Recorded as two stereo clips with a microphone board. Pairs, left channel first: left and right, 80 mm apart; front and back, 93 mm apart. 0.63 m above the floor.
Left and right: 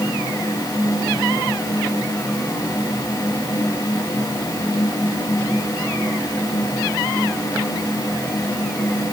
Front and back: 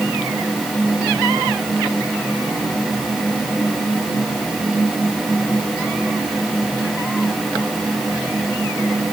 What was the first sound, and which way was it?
Only background noise.